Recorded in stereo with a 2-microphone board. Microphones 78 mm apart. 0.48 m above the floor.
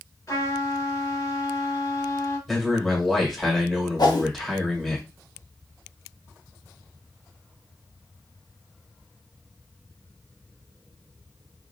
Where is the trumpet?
45° left (ahead or behind), 1.6 m.